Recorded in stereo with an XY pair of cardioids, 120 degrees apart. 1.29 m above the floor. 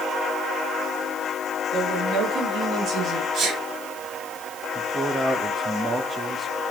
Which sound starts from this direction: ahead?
A man speaking, at 4.8 s.